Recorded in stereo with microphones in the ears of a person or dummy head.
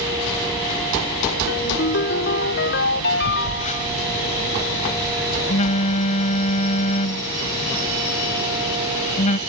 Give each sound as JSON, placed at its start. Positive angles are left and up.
{"t": 1.5, "sound": "a ringtone", "side_deg": 60}
{"t": 3.2, "sound": "a phone buzzing", "side_deg": 40}